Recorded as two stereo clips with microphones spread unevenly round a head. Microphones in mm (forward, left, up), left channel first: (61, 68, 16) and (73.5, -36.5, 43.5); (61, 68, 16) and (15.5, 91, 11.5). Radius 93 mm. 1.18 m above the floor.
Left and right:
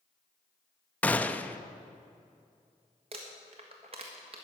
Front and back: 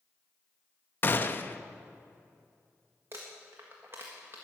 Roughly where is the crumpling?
Behind right.